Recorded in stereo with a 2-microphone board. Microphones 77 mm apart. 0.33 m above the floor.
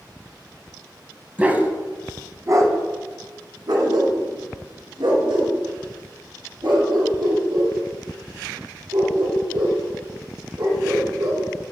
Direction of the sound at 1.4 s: 20° right (ahead or behind).